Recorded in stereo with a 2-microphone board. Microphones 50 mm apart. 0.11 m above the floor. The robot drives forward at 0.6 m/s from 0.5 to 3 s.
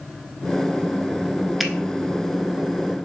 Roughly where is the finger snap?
Centre.